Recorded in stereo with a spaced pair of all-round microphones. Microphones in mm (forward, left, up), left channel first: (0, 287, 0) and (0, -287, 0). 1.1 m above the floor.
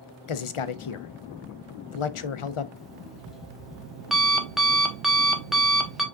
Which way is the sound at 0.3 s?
60° left (ahead or behind).